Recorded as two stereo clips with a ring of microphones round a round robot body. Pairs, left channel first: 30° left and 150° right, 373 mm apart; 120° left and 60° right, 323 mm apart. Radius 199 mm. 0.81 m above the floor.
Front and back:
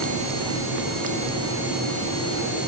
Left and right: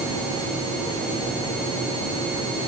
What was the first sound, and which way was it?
Only background noise.